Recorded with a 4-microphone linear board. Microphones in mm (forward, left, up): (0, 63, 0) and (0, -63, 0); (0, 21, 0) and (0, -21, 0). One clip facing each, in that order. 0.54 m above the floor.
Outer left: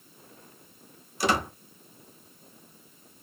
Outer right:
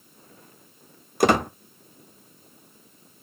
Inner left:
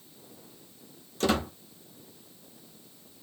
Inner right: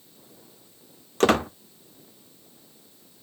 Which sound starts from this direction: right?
A squeak, at 1.2 s.